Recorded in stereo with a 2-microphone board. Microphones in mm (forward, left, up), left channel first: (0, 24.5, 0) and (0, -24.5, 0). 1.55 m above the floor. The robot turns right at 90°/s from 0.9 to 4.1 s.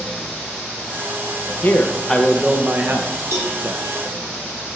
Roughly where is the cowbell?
Right.